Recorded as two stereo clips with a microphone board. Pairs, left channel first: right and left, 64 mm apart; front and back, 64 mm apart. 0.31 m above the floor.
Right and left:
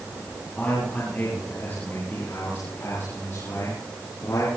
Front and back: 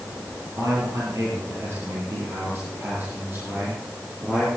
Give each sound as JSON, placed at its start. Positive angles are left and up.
{"t": 0.6, "sound": "a man speaking", "azimuth_deg": -155, "distance_m": 8.0}